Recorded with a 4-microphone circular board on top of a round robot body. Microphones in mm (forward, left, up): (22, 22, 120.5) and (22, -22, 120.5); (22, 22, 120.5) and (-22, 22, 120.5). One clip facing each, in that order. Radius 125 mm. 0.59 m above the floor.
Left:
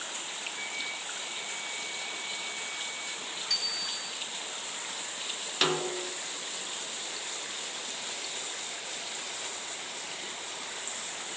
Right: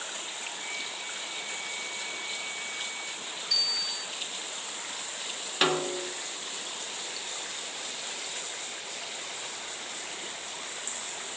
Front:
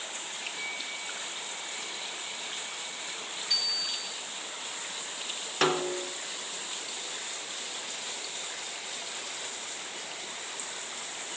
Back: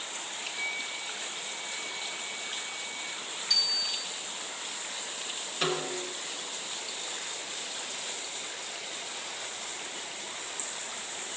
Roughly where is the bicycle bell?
Left.